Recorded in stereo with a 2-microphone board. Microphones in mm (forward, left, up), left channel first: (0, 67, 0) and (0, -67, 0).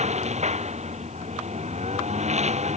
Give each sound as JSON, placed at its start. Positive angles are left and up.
{"t": 0.0, "sound": "a lawn mower", "side_deg": -55}